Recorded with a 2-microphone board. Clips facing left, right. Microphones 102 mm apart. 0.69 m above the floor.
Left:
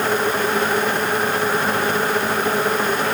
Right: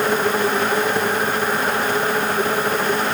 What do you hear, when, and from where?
Only background noise.